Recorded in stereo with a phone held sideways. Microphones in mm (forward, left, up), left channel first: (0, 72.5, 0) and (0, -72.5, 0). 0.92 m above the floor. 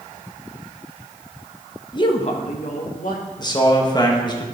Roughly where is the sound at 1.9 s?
Left.